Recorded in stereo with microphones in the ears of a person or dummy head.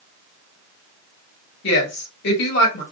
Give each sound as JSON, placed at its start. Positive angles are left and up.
{"t": 1.6, "sound": "a woman speaking", "side_deg": 60, "distance_m": 1.4}